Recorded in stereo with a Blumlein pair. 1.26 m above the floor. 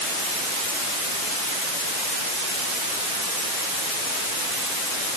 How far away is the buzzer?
No buzzer in this recording.